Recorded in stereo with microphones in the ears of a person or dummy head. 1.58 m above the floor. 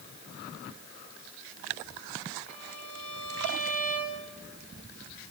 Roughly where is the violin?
Centre.